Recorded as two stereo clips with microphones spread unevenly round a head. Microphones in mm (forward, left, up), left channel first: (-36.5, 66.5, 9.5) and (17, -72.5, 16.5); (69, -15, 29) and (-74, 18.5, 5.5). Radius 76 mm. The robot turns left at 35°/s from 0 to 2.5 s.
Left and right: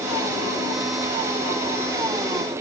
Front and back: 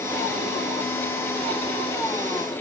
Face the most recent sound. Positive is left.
No sound to turn to.